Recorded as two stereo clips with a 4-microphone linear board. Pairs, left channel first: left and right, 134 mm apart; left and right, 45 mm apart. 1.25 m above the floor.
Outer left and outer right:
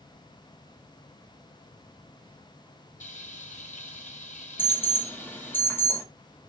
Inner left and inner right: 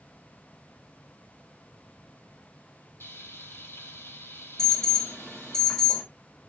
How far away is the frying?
About 4 m.